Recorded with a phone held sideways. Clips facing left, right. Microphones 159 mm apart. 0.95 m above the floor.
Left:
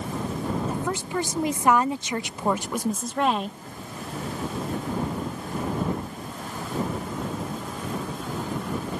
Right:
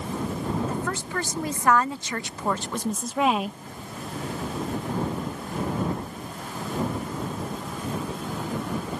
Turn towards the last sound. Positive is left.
turn(degrees=-10)  # may be behind; listen again after turning